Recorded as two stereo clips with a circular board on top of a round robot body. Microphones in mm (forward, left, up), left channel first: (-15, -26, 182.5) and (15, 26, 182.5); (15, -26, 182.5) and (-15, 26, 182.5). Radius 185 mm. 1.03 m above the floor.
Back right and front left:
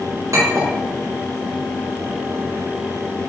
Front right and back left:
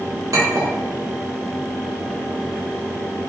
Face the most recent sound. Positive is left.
turn(degrees=95)